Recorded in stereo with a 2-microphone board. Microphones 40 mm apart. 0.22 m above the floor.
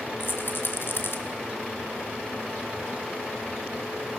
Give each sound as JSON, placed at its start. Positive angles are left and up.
{"t": 0.2, "sound": "a rattle", "side_deg": 65, "distance_m": 2.5}